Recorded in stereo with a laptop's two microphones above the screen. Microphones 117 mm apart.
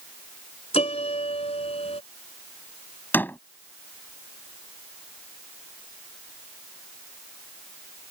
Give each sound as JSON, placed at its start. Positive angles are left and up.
{"t": 0.7, "sound": "a piano", "side_deg": 65}
{"t": 3.1, "sound": "a door slam", "side_deg": 15}